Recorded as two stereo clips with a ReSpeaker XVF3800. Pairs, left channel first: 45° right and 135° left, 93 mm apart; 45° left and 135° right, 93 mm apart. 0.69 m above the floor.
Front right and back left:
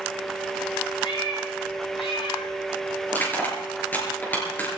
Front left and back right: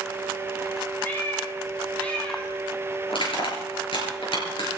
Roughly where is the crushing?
Ahead left.